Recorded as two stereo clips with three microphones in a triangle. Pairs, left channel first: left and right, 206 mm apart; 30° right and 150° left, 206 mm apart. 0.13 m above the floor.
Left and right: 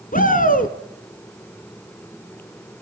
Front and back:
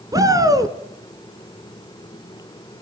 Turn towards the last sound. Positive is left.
turn(degrees=85)